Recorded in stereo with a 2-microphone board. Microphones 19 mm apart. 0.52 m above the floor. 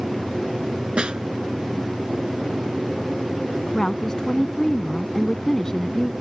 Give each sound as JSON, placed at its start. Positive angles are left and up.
{"t": 1.0, "sound": "a snare drum", "side_deg": -50}
{"t": 3.7, "sound": "a woman speaking", "side_deg": 30}